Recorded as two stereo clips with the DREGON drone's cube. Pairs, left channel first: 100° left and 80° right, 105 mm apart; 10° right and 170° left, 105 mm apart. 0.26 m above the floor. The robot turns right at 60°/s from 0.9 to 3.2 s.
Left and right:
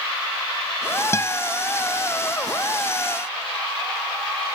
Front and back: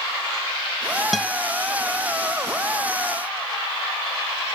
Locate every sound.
1.1 s a guitar: 80° left; by 1.4 s 95° left